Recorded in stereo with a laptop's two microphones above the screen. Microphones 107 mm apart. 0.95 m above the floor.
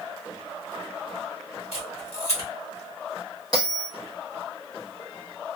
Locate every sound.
1.7 s a camera shutter: 75° left (ahead or behind), 1.3 m
3.5 s a bell: 40° left (ahead or behind), 1.2 m